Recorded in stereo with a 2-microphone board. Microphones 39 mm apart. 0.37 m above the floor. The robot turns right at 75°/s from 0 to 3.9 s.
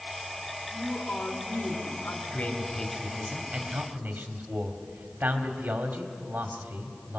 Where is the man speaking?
125° left, 1.7 m; by 7.2 s 115° right, 1.7 m.